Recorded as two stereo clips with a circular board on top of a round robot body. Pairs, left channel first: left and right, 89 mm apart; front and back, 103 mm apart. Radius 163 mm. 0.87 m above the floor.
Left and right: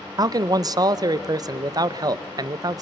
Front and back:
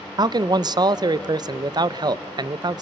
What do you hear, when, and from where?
0.2 s a man speaking: 135° right, 0.6 m